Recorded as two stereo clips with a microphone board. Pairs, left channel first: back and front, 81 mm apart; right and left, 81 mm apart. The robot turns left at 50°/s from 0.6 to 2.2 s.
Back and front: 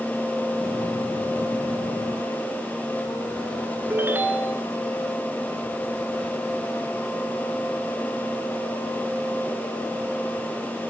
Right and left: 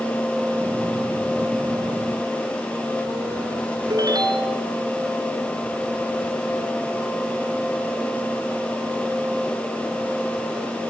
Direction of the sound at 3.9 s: 60° left.